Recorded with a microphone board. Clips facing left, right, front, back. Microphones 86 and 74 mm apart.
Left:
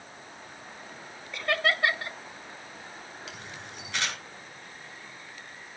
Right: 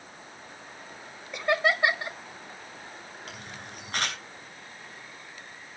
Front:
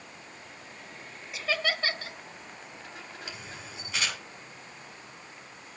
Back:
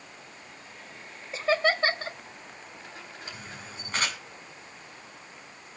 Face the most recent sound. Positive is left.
turn(degrees=-135)